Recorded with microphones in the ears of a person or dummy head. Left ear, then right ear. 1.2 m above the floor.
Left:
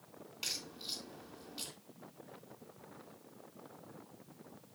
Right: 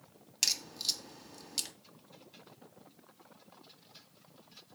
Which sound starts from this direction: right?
A crack, at 0.4 s.